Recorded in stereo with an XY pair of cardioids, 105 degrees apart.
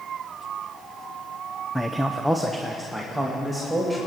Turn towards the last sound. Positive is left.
turn(degrees=5)